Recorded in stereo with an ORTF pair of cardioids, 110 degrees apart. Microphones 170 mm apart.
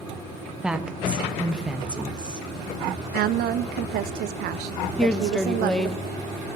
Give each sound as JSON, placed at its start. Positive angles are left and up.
{"t": 0.6, "sound": "a woman speaking", "azimuth_deg": -5, "distance_m": 0.7}
{"t": 3.1, "sound": "a woman speaking", "azimuth_deg": -70, "distance_m": 0.5}
{"t": 5.0, "sound": "a woman speaking", "azimuth_deg": 5, "distance_m": 0.5}